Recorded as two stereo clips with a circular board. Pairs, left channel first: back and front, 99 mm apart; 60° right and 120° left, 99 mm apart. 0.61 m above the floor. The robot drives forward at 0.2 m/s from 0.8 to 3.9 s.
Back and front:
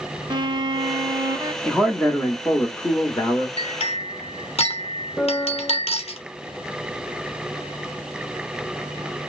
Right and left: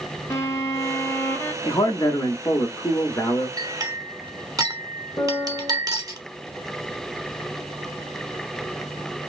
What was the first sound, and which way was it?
A violin, 10° right.